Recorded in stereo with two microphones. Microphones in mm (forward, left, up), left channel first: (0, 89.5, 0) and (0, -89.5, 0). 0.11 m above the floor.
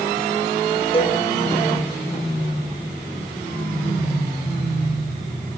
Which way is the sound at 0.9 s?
30° left (ahead or behind).